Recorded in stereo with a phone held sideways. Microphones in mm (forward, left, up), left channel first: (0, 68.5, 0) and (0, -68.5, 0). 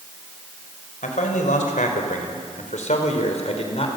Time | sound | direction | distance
1.0 | a man speaking | 80° left | 4.5 m